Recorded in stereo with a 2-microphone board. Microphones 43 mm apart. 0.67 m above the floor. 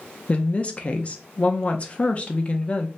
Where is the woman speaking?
30° left (ahead or behind), 0.6 m.